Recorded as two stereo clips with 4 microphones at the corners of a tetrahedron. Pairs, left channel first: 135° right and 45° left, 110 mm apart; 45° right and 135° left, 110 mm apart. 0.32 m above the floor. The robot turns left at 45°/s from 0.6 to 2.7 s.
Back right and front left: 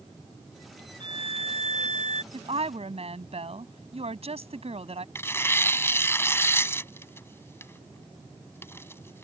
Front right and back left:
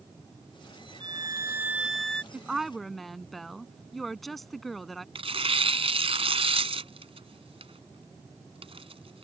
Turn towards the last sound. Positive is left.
turn(degrees=160)